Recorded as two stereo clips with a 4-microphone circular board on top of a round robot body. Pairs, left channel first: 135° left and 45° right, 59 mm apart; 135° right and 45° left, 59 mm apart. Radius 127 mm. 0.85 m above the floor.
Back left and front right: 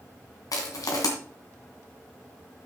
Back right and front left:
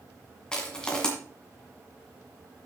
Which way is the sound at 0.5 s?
145° left.